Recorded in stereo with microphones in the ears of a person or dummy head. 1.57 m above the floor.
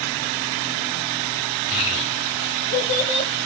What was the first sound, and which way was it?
A child speaking, 40° left (ahead or behind).